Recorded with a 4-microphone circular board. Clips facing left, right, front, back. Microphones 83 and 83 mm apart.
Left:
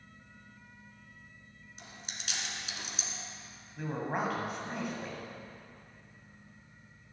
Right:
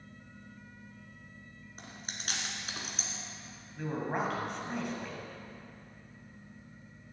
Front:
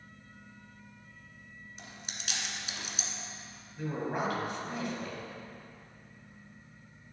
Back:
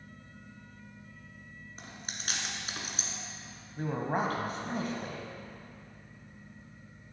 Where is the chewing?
135° right, 1.4 m.